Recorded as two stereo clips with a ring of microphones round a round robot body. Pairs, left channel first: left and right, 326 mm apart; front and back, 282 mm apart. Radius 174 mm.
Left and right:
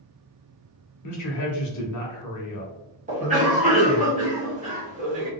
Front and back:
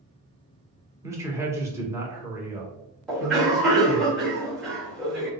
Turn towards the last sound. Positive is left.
turn(degrees=-85)